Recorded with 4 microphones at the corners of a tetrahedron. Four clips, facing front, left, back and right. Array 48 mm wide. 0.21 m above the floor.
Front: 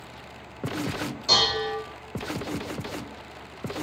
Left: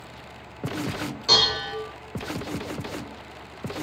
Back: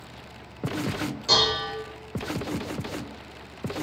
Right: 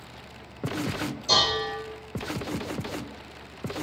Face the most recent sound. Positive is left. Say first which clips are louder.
# left 2 dB, even
turn(degrees=95)